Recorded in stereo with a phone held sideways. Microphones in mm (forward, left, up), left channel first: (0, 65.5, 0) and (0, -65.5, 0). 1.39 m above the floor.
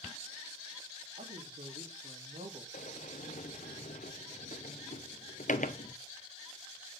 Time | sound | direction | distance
1.2 | a woman speaking | 60° right (ahead or behind) | 3.5 m
2.7 | a sliding door | 70° left (ahead or behind) | 0.8 m